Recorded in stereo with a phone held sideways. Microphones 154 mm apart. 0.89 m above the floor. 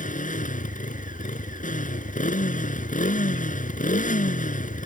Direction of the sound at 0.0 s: 60° left (ahead or behind).